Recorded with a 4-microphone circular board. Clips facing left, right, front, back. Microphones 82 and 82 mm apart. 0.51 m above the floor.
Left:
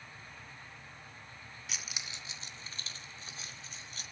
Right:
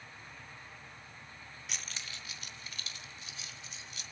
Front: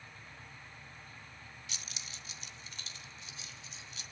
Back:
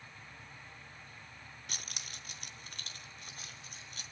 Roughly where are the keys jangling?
Behind.